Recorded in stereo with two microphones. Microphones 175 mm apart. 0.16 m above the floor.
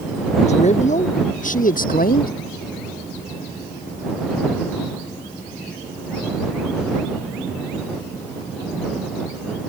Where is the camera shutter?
I don't hear a camera shutter.